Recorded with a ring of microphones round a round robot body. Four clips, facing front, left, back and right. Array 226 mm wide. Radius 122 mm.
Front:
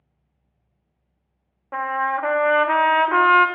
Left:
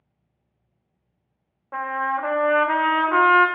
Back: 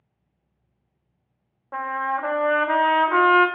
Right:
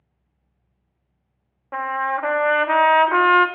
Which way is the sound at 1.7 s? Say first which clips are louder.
Right 2 dB, front 3 dB; 55° right.